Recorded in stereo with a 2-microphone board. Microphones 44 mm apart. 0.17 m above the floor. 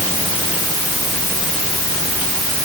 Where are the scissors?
I don't hear scissors.